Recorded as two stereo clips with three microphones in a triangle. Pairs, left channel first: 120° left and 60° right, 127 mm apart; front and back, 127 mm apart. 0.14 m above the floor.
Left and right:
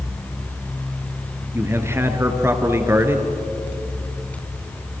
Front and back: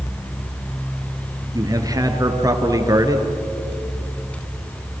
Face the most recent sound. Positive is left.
turn(degrees=-125)